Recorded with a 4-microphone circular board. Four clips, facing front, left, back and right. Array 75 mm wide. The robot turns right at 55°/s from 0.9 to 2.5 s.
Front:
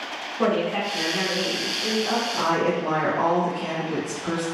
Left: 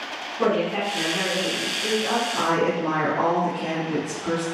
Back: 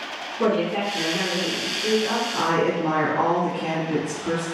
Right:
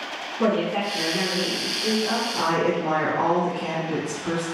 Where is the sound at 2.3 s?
155° left, 1.7 m; by 4.5 s 165° left, 1.7 m.